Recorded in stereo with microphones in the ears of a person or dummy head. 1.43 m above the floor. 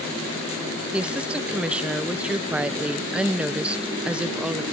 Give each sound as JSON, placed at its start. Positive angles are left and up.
{"t": 0.9, "sound": "a woman speaking", "side_deg": -5}